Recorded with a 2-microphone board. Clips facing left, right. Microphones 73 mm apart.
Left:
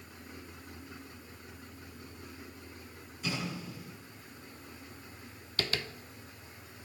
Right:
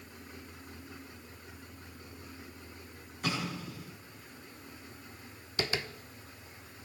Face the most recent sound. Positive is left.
turn(degrees=-20)  # may be behind; listen again after turning